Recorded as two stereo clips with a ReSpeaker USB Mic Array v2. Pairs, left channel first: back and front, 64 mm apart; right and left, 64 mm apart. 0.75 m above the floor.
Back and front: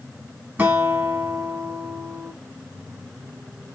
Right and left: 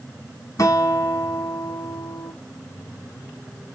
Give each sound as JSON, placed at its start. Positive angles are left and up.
{"t": 0.6, "sound": "a guitar", "azimuth_deg": -60, "distance_m": 1.1}